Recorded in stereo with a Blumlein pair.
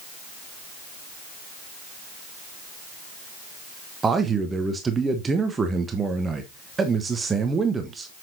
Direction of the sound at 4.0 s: 15° right.